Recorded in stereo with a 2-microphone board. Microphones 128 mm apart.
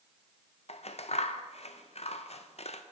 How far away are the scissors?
About 0.5 m.